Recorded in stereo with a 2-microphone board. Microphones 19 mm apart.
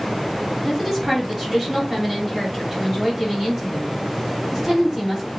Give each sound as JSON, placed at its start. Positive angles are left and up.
{"t": 0.6, "sound": "a woman speaking", "side_deg": -35, "distance_m": 1.9}